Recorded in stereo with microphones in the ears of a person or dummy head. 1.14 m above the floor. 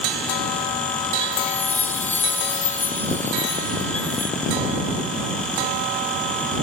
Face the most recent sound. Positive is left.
turn(degrees=10)  # may be behind; listen again after turning